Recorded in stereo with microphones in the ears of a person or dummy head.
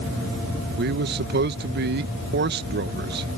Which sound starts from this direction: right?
A man speaking, at 0.8 s.